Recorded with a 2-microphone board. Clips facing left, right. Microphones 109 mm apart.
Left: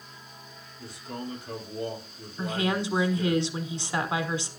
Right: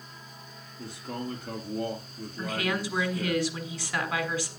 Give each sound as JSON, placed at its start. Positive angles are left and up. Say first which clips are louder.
{"t": 0.8, "sound": "a man speaking", "louder": "right 2 dB", "side_deg": -60, "distance_m": 3.5}
{"t": 2.4, "sound": "a woman speaking", "louder": "left 3 dB", "side_deg": 25, "distance_m": 1.4}